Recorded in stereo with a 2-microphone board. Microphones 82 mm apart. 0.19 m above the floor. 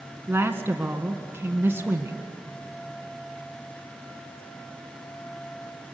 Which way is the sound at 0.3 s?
25° right (ahead or behind).